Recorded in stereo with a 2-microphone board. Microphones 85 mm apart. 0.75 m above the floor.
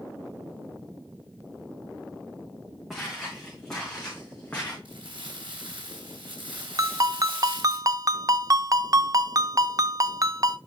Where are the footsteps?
Centre (ahead or behind), 4.5 m; by 4.8 s 15° left (ahead or behind), 4 m.